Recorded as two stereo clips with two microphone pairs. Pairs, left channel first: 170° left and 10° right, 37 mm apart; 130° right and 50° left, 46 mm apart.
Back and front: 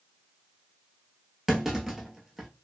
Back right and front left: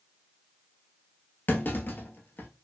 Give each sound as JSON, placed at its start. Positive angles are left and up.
{"t": 1.5, "sound": "a clunk", "azimuth_deg": -90, "distance_m": 0.8}